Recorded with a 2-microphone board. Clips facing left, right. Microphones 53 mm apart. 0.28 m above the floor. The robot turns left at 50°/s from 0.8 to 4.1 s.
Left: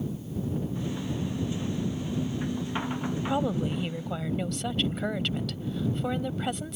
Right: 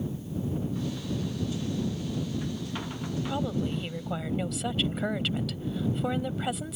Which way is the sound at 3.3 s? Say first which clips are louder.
Left 3 dB; 35° left.